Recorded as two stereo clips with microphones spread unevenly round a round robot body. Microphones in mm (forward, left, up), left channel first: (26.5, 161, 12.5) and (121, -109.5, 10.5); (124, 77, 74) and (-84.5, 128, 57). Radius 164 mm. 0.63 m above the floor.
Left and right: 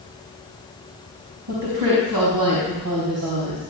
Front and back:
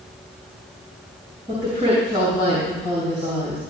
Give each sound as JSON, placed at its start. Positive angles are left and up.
{"t": 1.5, "sound": "a woman speaking", "azimuth_deg": -80, "distance_m": 4.5}